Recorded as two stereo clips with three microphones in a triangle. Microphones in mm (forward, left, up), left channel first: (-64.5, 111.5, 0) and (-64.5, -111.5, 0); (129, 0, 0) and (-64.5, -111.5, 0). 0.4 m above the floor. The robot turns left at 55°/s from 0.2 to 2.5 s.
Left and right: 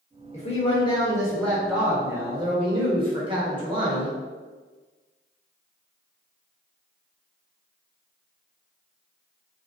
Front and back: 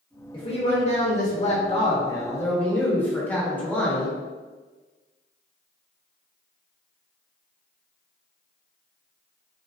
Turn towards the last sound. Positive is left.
turn(degrees=-45)